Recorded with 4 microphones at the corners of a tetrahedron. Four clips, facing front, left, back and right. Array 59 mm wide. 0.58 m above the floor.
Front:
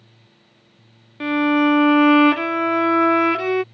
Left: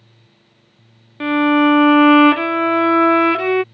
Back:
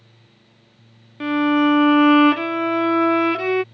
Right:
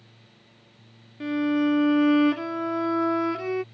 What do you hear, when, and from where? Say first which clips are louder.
1.2 s a violin: left 10 dB, even; 90° left